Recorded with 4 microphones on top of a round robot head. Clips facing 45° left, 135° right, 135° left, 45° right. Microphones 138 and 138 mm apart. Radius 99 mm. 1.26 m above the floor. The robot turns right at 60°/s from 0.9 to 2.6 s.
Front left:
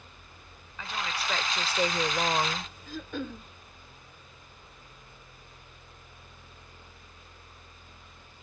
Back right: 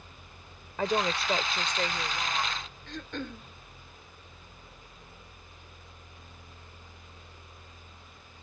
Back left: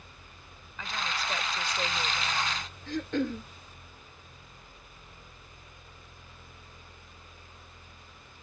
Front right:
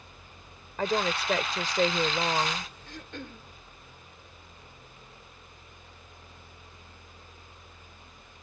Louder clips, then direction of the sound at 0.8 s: Back right 8 dB, front right 9 dB; 90° right.